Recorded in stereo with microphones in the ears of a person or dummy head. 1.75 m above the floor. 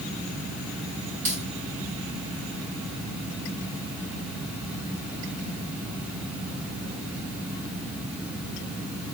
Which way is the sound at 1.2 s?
40° right (ahead or behind).